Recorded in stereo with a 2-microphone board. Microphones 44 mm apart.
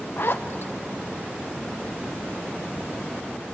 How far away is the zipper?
About 1.0 m.